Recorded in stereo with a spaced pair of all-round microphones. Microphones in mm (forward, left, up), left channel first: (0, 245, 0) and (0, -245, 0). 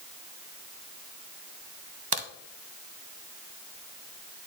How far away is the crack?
About 0.7 m.